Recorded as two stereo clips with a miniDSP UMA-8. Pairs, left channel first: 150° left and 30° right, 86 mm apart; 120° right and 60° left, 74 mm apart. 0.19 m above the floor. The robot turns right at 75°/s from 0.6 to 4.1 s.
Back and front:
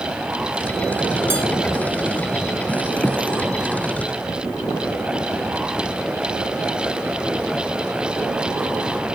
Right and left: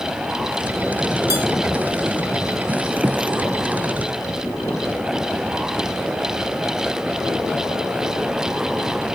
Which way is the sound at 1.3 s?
25° left.